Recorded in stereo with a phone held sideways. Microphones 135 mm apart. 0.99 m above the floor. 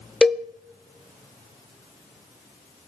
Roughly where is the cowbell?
Centre.